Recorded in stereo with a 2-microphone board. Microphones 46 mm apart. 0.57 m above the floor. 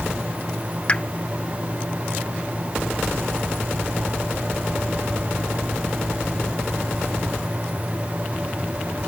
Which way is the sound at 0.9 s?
25° left (ahead or behind).